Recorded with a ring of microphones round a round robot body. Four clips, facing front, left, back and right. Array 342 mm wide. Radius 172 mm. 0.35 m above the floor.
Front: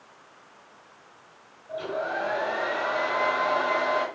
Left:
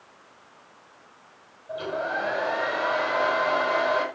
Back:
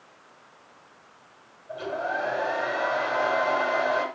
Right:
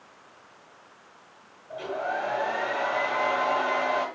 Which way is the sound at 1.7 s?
95° left.